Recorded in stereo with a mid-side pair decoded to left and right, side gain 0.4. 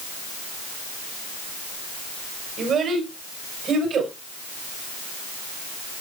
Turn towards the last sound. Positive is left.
turn(degrees=-65)